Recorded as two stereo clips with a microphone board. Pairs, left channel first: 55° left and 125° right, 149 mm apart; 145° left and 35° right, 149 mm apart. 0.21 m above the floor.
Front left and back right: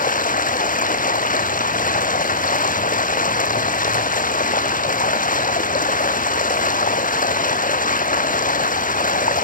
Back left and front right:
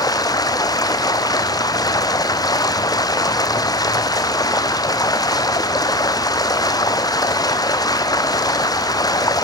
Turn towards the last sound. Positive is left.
turn(degrees=80)